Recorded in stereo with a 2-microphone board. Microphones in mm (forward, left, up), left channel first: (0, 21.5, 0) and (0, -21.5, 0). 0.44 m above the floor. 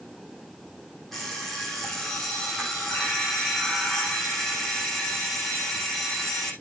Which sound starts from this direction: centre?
An alarm clock, at 1.1 s.